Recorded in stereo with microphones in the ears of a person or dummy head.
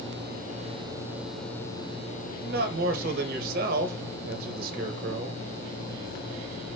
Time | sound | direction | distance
2.4 | a man speaking | 55° right (ahead or behind) | 1.4 m